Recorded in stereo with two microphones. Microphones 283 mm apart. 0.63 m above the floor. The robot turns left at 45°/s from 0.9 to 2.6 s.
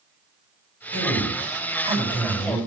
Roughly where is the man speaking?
Behind right.